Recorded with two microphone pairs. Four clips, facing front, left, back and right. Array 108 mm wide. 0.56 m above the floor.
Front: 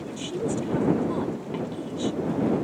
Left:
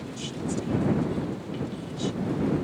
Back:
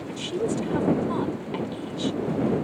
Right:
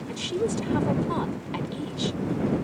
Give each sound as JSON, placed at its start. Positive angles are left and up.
{"t": 0.1, "sound": "a woman speaking", "azimuth_deg": -105}